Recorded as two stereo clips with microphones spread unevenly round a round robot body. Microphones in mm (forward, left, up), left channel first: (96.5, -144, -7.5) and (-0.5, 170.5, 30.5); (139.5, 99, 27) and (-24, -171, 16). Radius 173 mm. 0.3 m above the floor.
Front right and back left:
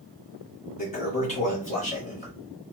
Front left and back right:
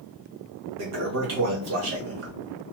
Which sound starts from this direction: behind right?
A toilet flushing, at 0.8 s.